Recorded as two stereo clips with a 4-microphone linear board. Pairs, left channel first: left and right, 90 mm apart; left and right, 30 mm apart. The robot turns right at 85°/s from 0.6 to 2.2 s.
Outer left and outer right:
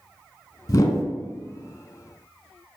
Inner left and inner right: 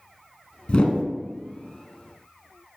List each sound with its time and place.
0.7 s a whoosh: 40° left (ahead or behind), 0.6 m; by 1.0 s 30° left (ahead or behind), 0.6 m